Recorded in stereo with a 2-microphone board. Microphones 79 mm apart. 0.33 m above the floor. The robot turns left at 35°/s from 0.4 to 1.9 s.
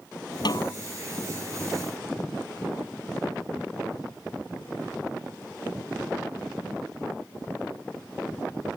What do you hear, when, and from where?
0.5 s a snare drum: 65° left (ahead or behind); by 0.8 s 55° left (ahead or behind)